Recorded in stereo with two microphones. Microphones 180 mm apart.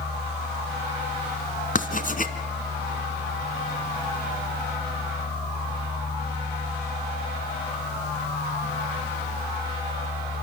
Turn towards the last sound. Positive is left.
turn(degrees=50)  # may be behind; listen again after turning